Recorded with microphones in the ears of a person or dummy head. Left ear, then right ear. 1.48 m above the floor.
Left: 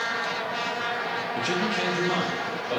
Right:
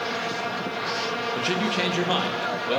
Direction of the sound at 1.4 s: 5° right (ahead or behind).